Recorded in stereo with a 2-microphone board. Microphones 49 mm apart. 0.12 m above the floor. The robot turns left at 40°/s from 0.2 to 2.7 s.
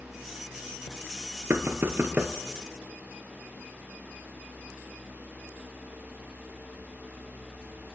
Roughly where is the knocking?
Right.